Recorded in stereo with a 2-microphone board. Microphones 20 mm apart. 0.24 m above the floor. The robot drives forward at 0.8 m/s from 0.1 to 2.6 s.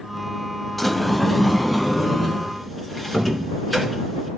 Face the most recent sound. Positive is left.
turn(degrees=5)  # may be behind; listen again after turning